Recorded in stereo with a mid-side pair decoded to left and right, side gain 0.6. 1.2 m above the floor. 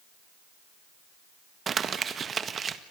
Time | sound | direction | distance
1.7 | crumpling | 35° right | 1.8 m